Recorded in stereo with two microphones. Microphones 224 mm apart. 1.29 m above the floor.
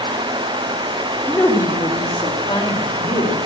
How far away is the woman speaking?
About 1.4 m.